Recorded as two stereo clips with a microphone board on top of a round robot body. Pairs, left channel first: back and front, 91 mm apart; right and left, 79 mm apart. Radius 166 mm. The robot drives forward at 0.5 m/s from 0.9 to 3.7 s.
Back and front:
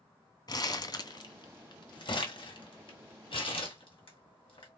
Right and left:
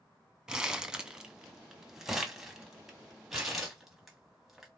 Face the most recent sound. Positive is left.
turn(degrees=175)